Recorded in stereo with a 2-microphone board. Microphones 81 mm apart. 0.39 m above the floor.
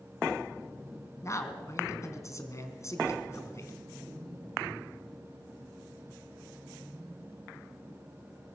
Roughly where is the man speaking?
Left.